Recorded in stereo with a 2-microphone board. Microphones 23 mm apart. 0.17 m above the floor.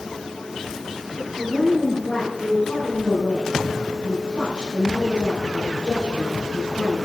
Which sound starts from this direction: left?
A woman speaking, at 1.4 s.